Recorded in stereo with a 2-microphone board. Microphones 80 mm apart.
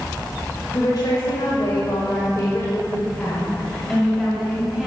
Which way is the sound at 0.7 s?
60° left (ahead or behind).